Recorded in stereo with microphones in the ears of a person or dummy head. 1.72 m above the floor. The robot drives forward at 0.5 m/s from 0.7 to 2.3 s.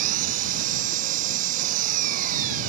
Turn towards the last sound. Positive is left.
turn(degrees=-50)  # may be behind; listen again after turning